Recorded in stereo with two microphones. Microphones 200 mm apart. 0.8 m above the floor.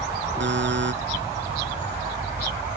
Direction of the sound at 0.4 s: 80° right.